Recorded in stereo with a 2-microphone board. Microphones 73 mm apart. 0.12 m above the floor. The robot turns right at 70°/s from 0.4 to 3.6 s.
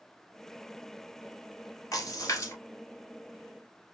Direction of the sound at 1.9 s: 50° left (ahead or behind).